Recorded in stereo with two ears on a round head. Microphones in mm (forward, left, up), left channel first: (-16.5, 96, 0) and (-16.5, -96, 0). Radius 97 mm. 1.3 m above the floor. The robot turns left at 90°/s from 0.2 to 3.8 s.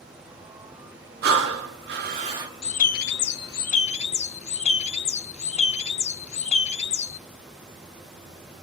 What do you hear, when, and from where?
1.2 s breathing: 50° right, 1.5 m; by 2.5 s 165° right, 1.5 m
2.6 s a bird: 145° left, 0.5 m; by 7.2 s 40° left, 0.5 m